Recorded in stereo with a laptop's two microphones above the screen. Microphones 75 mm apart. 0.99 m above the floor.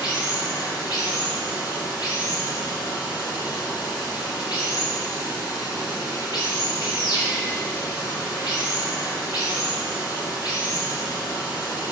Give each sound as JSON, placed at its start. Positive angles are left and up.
{"t": 0.0, "sound": "running water", "side_deg": 70, "distance_m": 3.0}